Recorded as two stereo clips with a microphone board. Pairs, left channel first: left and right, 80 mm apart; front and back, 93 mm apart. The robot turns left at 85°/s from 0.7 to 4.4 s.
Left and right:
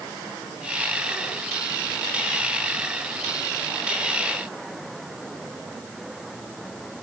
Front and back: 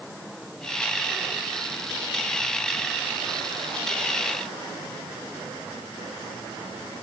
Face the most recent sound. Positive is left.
No sound to turn to.